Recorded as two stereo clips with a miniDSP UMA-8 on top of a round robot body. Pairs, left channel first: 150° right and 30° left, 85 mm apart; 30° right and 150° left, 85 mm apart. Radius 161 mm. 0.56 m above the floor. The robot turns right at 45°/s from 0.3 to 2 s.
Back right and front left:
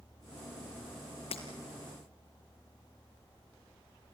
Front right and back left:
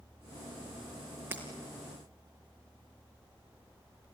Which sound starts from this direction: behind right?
Breaking glass, at 1.3 s.